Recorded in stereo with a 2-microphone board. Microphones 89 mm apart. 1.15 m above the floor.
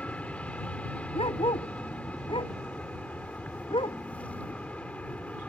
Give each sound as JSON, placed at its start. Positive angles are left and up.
{"t": 0.0, "sound": "an aircraft", "side_deg": 15}
{"t": 1.1, "sound": "a dog barking", "side_deg": 85}